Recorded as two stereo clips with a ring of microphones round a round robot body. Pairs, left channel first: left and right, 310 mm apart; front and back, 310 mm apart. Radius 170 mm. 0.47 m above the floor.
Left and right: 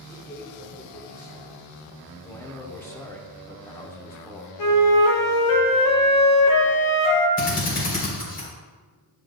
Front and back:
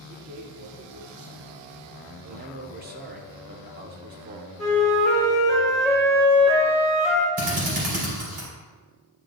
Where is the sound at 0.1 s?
170° left, 1.1 m.